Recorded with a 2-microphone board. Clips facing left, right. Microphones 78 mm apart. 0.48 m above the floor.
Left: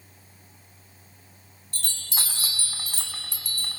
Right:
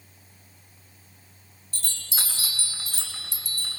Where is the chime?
55° left (ahead or behind), 3 m.